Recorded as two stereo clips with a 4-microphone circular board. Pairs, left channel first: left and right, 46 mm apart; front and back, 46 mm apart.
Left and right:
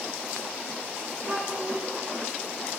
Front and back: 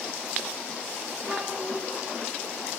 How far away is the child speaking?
About 4 m.